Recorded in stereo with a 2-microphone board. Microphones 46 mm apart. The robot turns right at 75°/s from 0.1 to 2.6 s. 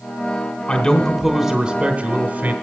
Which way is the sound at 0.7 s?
145° left.